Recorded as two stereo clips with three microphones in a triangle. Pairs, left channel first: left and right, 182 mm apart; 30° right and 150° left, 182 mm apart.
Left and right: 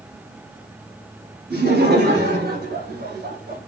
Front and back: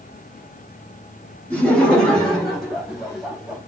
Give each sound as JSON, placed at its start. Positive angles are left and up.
{"t": 1.5, "sound": "laughter", "azimuth_deg": -115, "distance_m": 3.5}